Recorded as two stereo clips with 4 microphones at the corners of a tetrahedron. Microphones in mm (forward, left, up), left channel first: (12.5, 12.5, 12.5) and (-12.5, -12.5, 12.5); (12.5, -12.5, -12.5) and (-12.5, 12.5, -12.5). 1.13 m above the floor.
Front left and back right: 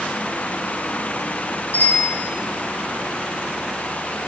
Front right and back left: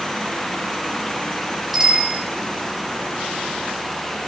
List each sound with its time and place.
1.7 s a bicycle bell: 50° left, 5.5 m